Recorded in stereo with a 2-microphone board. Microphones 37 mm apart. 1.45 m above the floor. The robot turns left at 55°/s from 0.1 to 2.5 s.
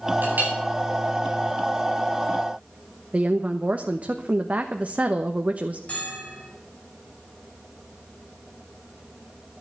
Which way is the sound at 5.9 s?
35° left (ahead or behind).